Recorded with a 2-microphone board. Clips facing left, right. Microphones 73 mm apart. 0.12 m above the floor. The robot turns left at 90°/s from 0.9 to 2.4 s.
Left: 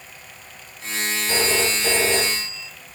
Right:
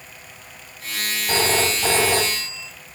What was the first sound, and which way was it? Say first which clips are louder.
A phone ringing: right 2 dB; 40° right.